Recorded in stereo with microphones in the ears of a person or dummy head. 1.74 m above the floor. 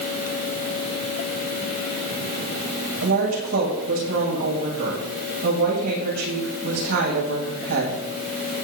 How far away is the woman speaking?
About 9 m.